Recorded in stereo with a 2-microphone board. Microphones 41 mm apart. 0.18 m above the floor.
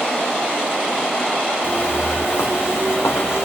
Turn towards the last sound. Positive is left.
turn(degrees=80)